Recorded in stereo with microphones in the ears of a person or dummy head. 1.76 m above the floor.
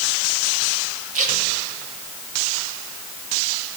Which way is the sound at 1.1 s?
40° right (ahead or behind).